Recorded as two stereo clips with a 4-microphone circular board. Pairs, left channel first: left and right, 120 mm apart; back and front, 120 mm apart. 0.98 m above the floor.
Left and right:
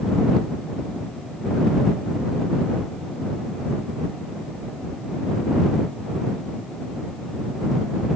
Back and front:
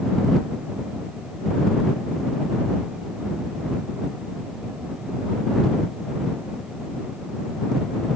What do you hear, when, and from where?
Only background noise.